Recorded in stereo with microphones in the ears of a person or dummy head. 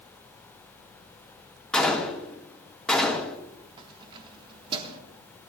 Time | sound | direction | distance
1.7 | a gunshot | 10° left (ahead or behind) | 1.8 m
3.8 | keys jangling | 30° right (ahead or behind) | 1.6 m